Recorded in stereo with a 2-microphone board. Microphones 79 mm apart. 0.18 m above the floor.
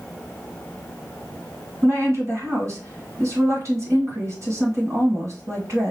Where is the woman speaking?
40° right (ahead or behind), 1.9 m.